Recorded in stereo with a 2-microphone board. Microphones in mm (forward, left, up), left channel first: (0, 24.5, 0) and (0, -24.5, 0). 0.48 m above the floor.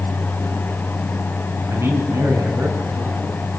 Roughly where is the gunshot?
I don't hear a gunshot.